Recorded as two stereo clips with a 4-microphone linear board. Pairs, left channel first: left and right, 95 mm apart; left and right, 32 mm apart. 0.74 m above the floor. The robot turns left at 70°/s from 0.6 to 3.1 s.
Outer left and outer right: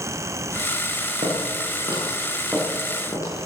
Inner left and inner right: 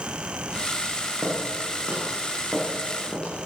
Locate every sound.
1.2 s footsteps: 80° right, 10 m; by 3.5 s 35° left (ahead or behind), 8.5 m